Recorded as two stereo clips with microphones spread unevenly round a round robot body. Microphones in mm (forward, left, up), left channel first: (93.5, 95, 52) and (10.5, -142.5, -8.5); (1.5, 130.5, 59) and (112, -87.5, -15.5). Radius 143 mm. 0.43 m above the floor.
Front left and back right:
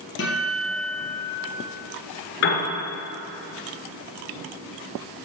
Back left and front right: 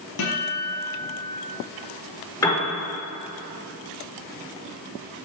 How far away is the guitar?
About 4.5 m.